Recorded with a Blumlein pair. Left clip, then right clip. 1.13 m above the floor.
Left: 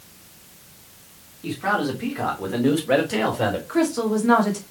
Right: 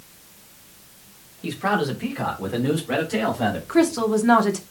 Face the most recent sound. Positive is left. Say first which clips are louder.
# right 2 dB
turn(degrees=-15)